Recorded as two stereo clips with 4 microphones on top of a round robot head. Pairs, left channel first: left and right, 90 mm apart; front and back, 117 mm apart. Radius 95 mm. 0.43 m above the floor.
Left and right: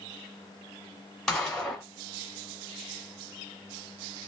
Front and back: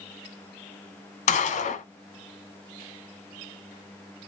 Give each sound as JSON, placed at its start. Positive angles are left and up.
{"t": 1.3, "sound": "a gunshot", "azimuth_deg": 5, "distance_m": 0.8}